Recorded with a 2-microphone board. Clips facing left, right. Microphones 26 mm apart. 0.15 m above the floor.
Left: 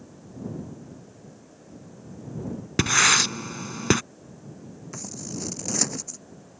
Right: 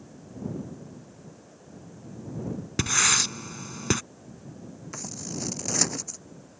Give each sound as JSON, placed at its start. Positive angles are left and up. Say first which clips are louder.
{"t": 2.8, "sound": "writing", "louder": "left 5 dB", "side_deg": 20}
{"t": 4.9, "sound": "scissors", "louder": "even", "side_deg": -5}